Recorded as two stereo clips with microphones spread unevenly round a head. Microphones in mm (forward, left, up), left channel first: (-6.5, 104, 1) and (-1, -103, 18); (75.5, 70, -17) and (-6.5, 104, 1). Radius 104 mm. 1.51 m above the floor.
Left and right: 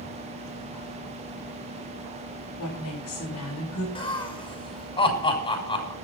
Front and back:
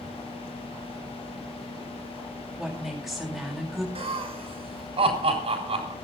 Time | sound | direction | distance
2.6 | a woman speaking | 75° left | 8 m
4.0 | laughter | 160° left | 7 m